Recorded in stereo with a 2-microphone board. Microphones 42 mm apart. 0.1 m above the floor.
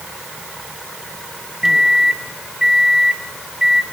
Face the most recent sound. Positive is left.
turn(degrees=-10)  # may be behind; listen again after turning